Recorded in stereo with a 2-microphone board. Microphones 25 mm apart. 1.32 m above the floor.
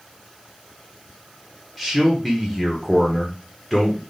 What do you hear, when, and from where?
1.8 s a man speaking: 5° left (ahead or behind), 0.8 m